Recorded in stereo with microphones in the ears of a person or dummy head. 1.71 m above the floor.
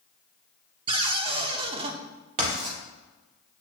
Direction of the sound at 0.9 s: 30° right (ahead or behind).